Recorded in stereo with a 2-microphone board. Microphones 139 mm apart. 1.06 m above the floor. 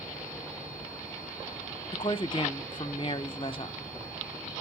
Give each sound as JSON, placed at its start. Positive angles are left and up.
{"t": 1.9, "sound": "a woman speaking", "side_deg": 40, "distance_m": 0.7}